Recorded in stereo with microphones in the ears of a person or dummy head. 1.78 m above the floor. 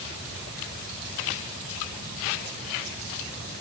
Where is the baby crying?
No baby crying in this recording.